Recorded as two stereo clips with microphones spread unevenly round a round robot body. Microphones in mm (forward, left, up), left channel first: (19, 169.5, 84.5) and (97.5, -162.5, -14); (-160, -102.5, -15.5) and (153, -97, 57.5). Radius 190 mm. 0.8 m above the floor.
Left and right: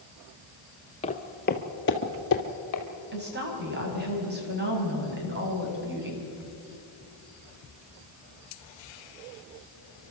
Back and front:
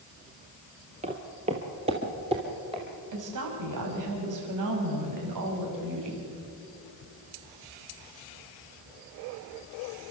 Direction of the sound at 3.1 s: 20° right.